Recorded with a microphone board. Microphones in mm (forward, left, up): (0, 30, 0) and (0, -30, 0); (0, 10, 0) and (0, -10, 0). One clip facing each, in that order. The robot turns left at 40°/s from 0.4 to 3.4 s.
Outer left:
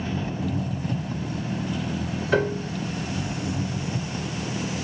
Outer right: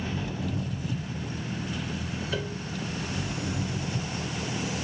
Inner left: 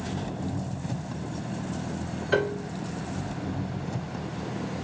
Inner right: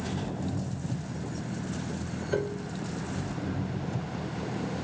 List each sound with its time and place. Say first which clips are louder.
0.0 s an engine running: outer left 4 dB, inner left 1 dB; 145° left; by 4.8 s 25° left
2.3 s a piano: outer left 14 dB, inner left 6 dB; 60° left (ahead or behind); by 2.7 s 45° left (ahead or behind)